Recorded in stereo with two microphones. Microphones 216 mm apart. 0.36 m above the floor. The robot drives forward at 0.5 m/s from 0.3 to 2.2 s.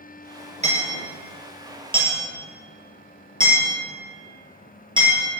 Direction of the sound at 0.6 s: 35° right (ahead or behind).